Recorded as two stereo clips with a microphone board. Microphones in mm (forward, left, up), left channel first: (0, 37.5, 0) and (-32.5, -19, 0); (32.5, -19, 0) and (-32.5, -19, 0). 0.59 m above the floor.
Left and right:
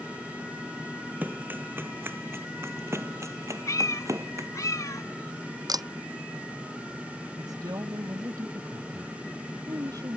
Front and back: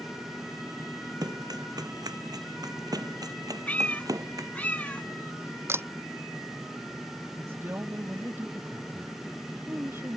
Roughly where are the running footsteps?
Behind.